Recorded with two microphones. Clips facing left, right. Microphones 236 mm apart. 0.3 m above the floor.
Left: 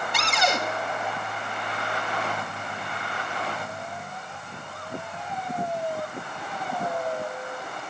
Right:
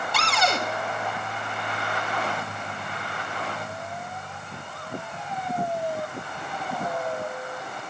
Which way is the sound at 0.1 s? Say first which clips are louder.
Even; 20° left (ahead or behind).